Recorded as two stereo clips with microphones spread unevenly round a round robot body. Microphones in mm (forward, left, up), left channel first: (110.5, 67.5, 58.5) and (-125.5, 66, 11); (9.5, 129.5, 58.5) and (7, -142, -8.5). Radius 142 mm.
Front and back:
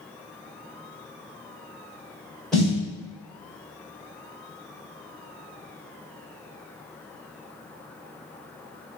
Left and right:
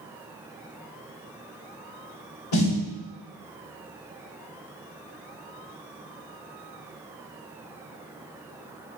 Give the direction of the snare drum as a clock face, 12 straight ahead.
9 o'clock.